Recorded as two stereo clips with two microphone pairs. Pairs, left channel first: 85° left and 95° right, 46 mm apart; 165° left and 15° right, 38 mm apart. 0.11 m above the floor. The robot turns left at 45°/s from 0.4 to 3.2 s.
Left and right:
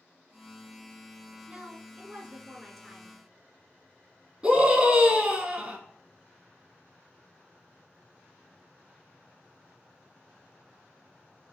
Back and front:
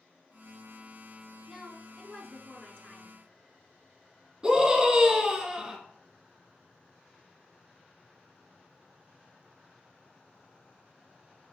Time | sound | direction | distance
1.5 | a woman speaking | 120° right | 1.1 m
4.4 | a scream | 45° right | 1.4 m